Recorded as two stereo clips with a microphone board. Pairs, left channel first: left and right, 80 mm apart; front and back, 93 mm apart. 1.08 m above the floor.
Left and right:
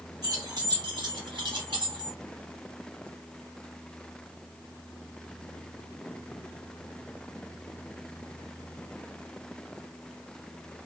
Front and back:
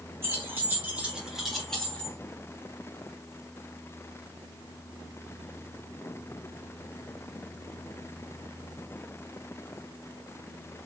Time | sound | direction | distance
0.2 | keys jangling | 120° right | 1.9 m